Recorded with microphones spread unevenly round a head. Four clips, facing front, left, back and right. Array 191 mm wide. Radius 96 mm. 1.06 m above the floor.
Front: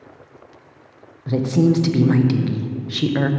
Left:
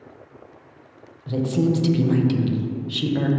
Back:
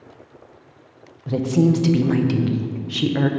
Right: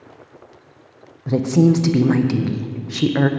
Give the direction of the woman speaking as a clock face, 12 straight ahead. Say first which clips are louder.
Right 6 dB, front 1 dB; 3 o'clock.